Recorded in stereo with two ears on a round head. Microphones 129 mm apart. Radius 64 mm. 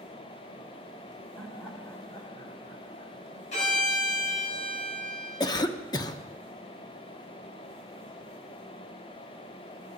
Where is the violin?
55° left (ahead or behind), 4 m.